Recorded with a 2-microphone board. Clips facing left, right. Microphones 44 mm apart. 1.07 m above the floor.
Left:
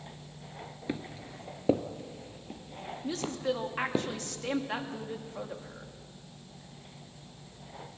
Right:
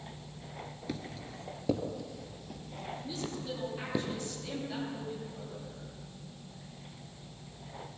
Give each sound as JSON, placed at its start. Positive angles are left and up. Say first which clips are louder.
{"t": 0.9, "sound": "footsteps", "louder": "left 4 dB", "side_deg": 25, "distance_m": 1.1}
{"t": 3.0, "sound": "a woman speaking", "louder": "left 9 dB", "side_deg": 70, "distance_m": 2.5}